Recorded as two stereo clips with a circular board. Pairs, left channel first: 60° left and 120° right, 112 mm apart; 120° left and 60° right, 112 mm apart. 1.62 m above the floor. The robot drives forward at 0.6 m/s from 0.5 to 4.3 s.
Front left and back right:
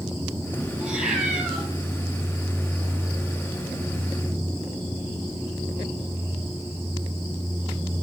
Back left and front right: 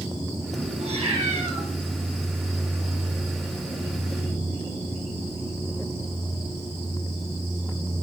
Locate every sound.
0.8 s a cat meowing: 35° right, 9.5 m; by 1.6 s 40° right, 9 m